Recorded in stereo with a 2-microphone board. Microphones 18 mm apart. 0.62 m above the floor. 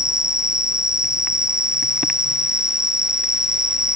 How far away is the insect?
About 1.3 m.